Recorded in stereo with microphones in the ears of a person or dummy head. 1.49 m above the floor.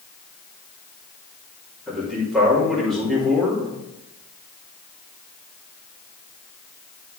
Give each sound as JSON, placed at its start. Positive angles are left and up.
{"t": 1.9, "sound": "a man speaking", "side_deg": 5, "distance_m": 3.5}